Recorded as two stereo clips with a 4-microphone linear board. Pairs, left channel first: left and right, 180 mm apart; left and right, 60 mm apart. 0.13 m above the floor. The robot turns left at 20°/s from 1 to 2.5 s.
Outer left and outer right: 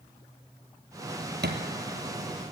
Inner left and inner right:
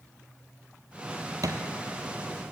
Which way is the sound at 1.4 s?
70° right (ahead or behind).